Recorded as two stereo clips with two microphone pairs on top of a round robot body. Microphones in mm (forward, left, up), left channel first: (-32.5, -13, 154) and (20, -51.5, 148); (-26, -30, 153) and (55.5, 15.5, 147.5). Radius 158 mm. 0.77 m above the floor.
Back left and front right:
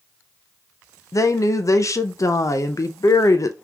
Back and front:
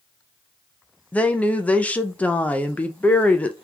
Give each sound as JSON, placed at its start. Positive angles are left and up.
{"t": 1.1, "sound": "a woman speaking", "azimuth_deg": 135, "distance_m": 0.7}